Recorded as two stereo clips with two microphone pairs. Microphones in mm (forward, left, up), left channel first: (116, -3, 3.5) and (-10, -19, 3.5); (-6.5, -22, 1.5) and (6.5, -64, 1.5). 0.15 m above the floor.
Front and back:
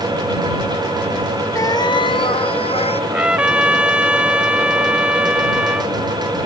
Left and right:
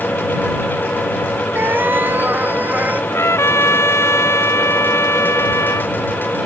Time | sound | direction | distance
1.6 | a cat meowing | 50° right | ?
3.1 | a trumpet | 105° left | ?